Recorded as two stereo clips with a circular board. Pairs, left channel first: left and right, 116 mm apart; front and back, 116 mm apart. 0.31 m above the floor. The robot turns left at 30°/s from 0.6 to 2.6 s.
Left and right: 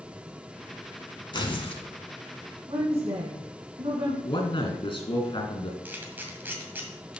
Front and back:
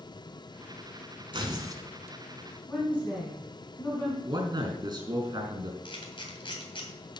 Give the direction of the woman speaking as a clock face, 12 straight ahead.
2 o'clock.